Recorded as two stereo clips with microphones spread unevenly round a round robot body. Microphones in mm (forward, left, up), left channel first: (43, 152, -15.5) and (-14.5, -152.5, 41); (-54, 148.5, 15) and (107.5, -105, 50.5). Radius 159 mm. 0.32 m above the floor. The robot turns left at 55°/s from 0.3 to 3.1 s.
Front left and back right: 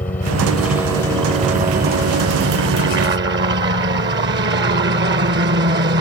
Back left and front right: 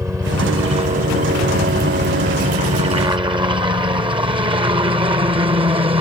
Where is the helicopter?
25° left; by 6.0 s 120° right.